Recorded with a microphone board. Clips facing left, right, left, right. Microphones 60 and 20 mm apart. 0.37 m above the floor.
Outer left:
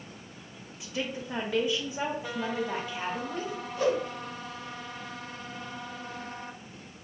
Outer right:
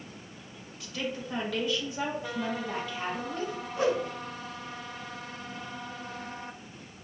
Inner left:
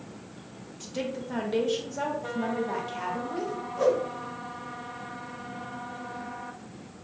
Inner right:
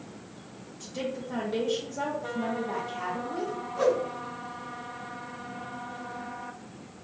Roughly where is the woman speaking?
Left.